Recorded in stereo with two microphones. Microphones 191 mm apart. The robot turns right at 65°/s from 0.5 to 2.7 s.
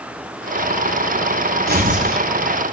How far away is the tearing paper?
About 3 m.